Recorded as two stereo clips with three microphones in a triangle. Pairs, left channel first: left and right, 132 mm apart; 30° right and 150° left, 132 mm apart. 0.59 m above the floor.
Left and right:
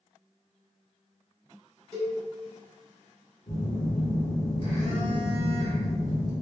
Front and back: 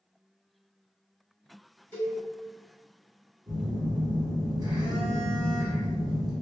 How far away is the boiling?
No boiling in this recording.